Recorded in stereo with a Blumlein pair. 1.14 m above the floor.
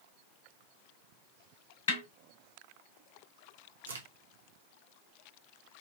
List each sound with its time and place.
1.9 s a snare drum: 60° left, 3 m
3.9 s a crack: 70° right, 1.1 m